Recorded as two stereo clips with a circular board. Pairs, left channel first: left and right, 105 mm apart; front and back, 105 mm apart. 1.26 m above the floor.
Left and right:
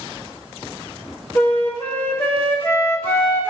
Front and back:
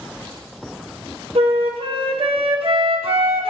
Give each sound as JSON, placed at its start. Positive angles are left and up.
{"t": 1.4, "sound": "a flute", "azimuth_deg": 160, "distance_m": 0.8}